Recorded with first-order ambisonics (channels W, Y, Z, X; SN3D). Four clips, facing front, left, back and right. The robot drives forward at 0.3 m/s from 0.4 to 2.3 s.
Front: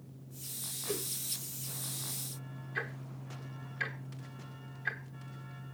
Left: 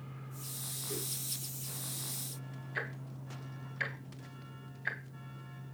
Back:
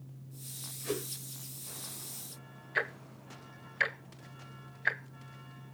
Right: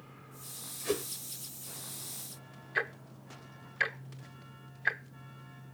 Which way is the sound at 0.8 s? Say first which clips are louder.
Right 9 dB, back 2 dB; 110° right.